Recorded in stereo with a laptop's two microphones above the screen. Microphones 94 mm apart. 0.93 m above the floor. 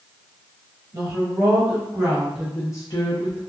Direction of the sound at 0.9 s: 50° right (ahead or behind).